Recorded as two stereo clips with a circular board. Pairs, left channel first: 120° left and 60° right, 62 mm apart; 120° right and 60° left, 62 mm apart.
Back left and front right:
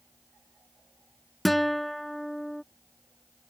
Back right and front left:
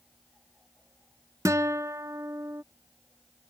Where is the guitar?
30° left.